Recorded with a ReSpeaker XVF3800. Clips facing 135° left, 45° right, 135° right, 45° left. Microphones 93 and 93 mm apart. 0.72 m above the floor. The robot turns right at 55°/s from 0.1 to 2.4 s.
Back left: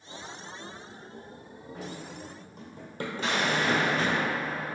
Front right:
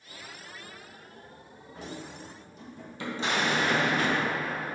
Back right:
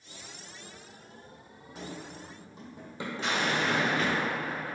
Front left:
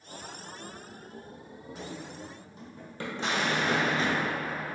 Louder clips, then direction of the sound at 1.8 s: Even, even; 135° left.